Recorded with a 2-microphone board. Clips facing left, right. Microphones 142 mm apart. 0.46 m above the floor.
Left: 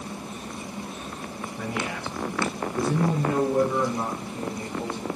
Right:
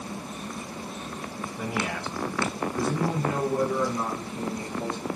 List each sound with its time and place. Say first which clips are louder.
1.6 s a man speaking: even; 10° right (ahead or behind), 0.7 m; by 5.1 s 65° left (ahead or behind), 2 m